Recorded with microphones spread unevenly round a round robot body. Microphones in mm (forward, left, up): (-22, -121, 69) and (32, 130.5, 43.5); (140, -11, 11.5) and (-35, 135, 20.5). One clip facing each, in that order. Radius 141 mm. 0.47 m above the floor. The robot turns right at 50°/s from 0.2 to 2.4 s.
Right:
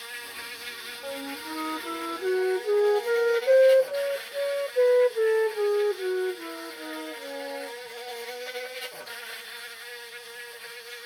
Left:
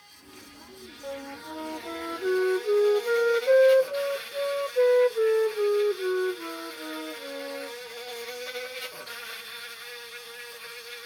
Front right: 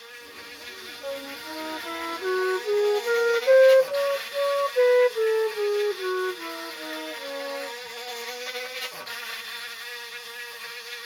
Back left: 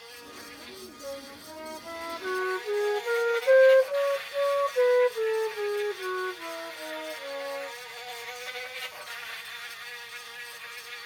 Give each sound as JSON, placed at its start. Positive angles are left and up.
{"t": 0.0, "sound": "an insect", "azimuth_deg": -115}
{"t": 1.0, "sound": "a flute", "azimuth_deg": -65}